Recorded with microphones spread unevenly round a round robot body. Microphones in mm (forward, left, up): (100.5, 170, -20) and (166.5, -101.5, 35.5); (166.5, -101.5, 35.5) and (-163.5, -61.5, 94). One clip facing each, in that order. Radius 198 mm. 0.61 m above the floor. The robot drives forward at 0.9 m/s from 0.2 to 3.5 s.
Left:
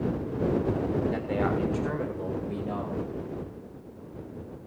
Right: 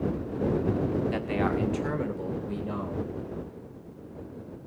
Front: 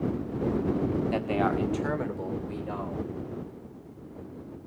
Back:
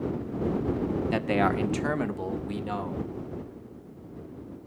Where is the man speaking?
130° right, 1.4 m; by 3.1 s 160° right, 3 m.